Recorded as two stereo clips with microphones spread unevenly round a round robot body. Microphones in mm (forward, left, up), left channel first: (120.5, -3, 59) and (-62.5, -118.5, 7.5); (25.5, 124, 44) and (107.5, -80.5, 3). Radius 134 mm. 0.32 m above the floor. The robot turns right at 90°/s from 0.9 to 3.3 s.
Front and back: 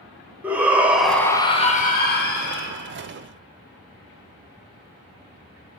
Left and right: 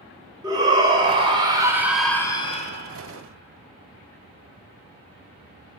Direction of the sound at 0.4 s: 95° right.